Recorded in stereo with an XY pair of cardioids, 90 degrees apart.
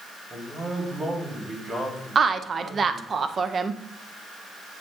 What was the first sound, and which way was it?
A man speaking, 30° right.